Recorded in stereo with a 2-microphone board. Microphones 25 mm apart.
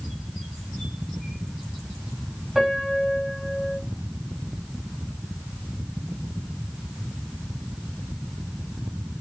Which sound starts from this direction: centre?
A piano, at 2.5 s.